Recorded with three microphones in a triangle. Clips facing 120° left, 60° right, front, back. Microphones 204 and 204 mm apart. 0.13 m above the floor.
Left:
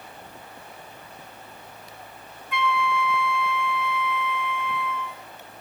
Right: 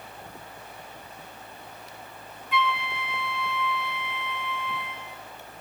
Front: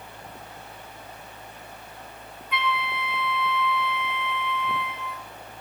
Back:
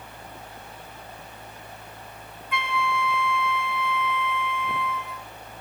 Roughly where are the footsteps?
No footsteps in this recording.